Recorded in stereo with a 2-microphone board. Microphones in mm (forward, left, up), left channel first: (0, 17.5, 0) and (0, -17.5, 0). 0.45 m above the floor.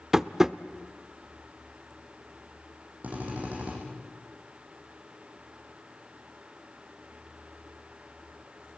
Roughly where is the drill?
Right.